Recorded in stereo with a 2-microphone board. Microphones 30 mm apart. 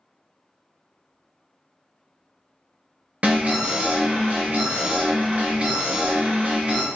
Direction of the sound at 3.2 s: 50° right (ahead or behind).